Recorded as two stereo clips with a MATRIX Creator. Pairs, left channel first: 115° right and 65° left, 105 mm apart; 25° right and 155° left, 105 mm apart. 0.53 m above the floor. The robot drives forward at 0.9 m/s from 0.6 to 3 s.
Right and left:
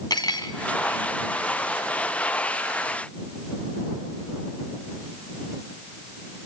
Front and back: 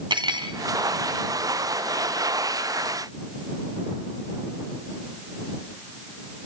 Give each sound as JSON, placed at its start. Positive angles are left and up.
{"t": 0.1, "sound": "cutlery clinking", "azimuth_deg": -160, "distance_m": 2.5}